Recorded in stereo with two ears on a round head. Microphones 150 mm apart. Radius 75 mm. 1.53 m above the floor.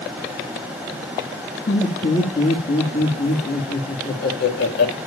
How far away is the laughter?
About 2.5 m.